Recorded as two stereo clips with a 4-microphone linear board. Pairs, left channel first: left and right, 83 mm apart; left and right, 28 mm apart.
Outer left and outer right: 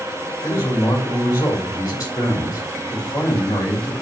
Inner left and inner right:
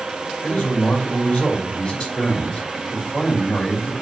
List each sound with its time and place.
0.4 s a man speaking: 35° left (ahead or behind), 5 m